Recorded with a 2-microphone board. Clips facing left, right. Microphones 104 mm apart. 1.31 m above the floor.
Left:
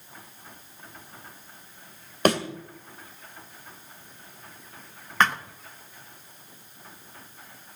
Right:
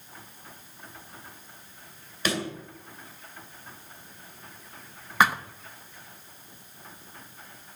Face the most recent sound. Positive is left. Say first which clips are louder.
# right 1 dB
turn(degrees=-10)  # may be behind; listen again after turning